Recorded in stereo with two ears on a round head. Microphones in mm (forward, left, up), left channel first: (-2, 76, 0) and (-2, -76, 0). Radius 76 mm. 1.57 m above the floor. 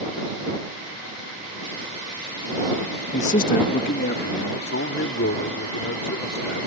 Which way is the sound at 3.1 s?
40° left (ahead or behind).